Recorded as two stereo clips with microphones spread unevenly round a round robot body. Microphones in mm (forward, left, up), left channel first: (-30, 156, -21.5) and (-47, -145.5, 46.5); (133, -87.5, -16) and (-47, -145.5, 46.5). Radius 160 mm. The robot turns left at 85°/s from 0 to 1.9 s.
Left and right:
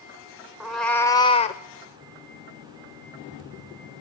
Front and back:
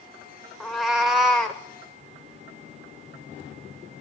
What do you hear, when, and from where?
0.6 s a cat meowing: 135° right, 0.5 m; by 1.6 s 140° left, 0.5 m